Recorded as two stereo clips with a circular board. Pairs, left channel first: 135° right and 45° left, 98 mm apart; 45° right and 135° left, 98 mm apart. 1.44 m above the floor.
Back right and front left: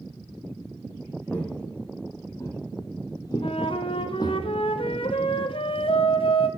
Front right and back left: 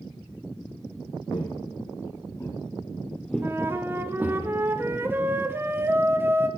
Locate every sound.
1.3 s footsteps: 65° right, 2.5 m; by 4.4 s 165° right, 2.5 m
3.4 s a flute: 155° right, 0.9 m